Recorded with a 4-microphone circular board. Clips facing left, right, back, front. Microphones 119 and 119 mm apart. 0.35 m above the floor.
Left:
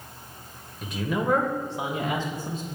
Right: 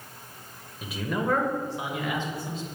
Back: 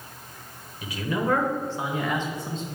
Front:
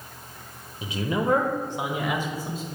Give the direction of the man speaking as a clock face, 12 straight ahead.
12 o'clock.